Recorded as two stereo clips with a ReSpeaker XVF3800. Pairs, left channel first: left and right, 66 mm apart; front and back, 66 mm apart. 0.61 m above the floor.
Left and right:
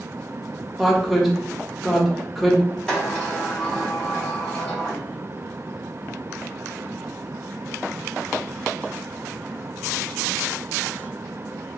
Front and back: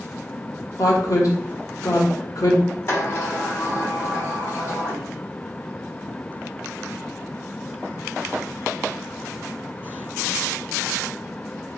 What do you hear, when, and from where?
0.8 s a woman speaking: straight ahead, 0.9 m
2.9 s a sliding door: 20° left, 1.6 m